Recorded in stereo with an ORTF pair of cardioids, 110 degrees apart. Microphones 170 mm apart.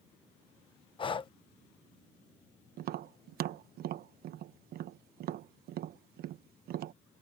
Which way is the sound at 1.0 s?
30° left.